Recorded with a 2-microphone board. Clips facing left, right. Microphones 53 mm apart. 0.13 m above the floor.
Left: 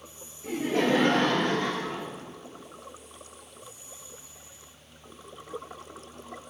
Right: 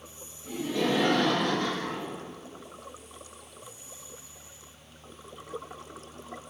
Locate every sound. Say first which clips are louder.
0.4 s laughter: left 3 dB; 55° left (ahead or behind), 2 m; by 2.1 s 15° left (ahead or behind), 2.5 m